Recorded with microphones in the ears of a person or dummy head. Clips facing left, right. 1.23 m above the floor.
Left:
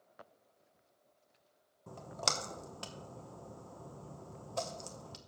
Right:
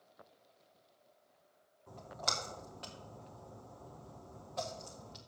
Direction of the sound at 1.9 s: 55° left (ahead or behind).